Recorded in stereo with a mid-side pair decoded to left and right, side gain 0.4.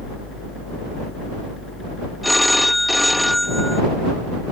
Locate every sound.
0.0 s a machine running: 45° left
2.2 s a phone ringing: 10° left